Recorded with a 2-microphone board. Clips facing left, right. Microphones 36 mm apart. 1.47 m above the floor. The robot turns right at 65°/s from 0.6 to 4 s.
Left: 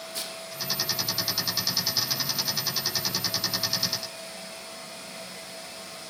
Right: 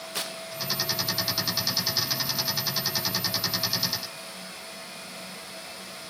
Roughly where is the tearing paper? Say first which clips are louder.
Right 4 dB; right.